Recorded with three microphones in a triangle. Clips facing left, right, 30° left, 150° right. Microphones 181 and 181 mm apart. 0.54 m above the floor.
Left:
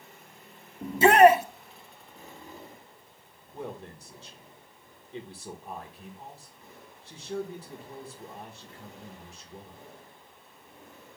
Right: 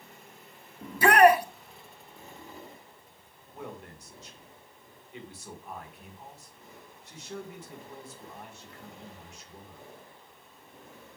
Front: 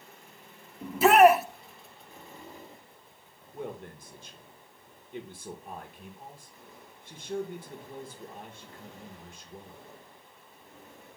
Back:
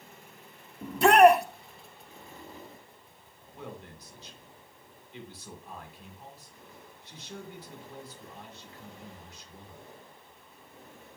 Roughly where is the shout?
Behind left.